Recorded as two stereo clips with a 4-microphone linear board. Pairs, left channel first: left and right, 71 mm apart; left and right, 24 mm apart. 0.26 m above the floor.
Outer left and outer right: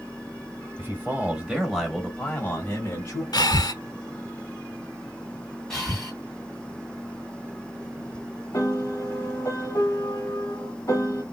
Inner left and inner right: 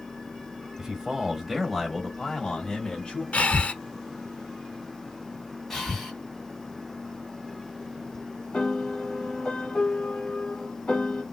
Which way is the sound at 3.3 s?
75° left (ahead or behind).